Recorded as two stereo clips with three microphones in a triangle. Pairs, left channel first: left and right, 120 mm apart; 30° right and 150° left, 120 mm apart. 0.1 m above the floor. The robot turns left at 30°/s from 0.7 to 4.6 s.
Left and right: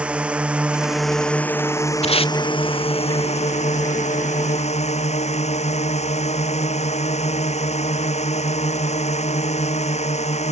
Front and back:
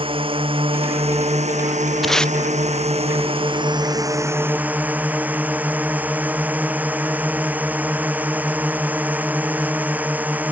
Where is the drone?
170° right; by 10.5 s 75° left.